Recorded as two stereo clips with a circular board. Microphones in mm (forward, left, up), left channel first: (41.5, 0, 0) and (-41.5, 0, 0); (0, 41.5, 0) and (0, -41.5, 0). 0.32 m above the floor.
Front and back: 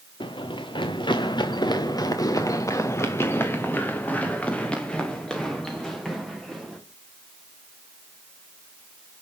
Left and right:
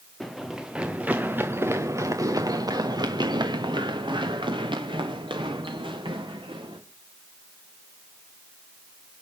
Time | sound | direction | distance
0.2 | running footsteps | straight ahead | 2 m